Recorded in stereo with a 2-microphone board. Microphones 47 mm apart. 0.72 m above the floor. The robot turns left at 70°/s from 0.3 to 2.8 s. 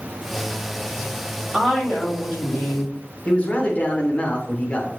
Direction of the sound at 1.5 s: 165° right.